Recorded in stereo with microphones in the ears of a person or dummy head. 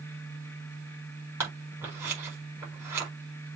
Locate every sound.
1.4 s scissors: 10° right (ahead or behind), 4.5 m